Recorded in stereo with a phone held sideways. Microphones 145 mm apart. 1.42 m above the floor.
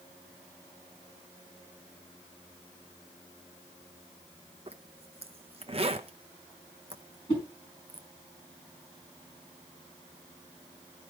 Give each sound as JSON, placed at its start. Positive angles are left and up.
{"t": 4.7, "sound": "a zipper", "side_deg": -45, "distance_m": 0.7}
{"t": 7.3, "sound": "a whoosh", "side_deg": 40, "distance_m": 4.5}